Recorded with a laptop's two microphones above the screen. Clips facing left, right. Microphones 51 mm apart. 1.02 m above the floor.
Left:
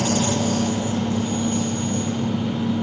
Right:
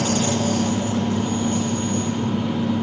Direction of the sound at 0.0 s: 45° right (ahead or behind).